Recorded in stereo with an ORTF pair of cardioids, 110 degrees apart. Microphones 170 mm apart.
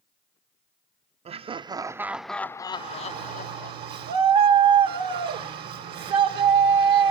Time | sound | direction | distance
1.2 | laughter | 40° right | 0.9 m
2.7 | a shout | 70° right | 1.9 m